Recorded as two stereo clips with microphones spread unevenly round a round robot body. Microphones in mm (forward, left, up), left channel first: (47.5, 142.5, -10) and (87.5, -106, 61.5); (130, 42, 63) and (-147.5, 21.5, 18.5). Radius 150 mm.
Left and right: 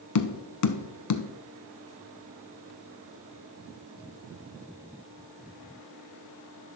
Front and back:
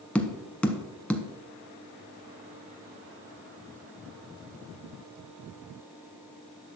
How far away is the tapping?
About 0.7 m.